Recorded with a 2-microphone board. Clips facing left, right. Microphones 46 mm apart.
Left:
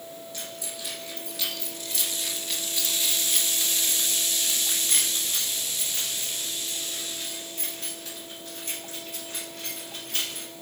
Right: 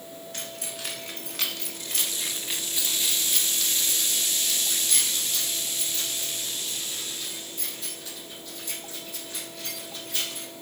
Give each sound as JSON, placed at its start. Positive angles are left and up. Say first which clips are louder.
{"t": 0.3, "sound": "keys jangling", "louder": "right 3 dB", "side_deg": -70, "distance_m": 1.7}